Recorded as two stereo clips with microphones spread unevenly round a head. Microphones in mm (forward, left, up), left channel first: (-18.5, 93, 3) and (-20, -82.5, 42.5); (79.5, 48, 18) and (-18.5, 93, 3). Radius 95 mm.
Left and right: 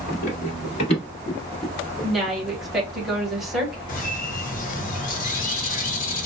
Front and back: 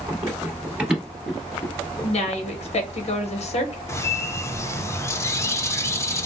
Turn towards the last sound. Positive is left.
turn(degrees=40)